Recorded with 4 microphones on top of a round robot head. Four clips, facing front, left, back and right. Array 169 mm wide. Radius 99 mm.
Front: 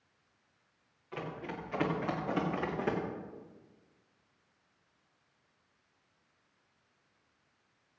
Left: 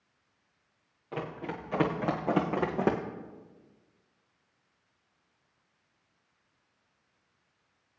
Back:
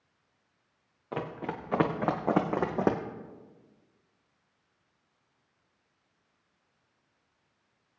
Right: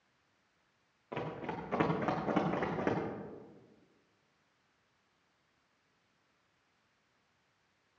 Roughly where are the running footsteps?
Behind.